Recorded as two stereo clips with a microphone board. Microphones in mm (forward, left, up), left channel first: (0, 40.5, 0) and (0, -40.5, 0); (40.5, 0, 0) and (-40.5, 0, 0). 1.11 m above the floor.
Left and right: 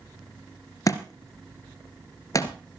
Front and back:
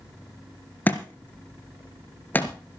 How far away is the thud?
About 1.7 m.